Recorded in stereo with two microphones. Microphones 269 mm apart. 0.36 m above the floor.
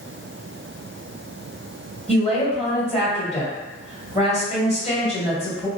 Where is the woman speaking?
25° left (ahead or behind), 1.7 m.